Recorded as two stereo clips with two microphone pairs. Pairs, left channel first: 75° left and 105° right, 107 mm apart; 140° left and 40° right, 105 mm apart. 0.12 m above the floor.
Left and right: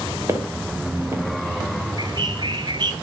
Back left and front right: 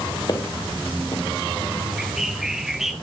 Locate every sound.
0.3 s footsteps: 170° right, 2.5 m
2.0 s a bird: 125° right, 1.0 m